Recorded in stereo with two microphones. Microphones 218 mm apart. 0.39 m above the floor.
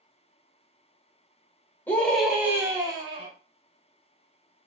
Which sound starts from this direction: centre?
A scream, at 1.9 s.